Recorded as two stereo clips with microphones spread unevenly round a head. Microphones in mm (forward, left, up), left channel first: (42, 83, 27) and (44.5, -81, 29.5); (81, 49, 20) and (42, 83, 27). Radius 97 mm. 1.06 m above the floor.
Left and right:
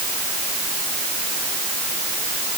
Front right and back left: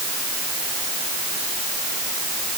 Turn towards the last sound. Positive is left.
No sound to turn to.